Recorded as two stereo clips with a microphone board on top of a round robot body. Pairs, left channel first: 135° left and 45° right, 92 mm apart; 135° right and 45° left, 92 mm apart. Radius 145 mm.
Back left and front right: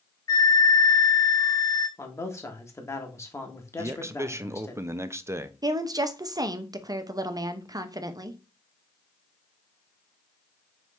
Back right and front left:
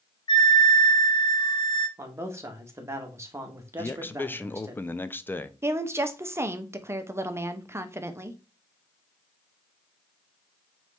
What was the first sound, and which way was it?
A flute, 175° right.